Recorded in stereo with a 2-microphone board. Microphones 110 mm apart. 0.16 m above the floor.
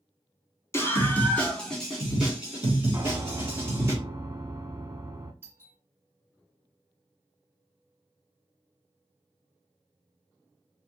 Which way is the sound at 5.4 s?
25° right (ahead or behind).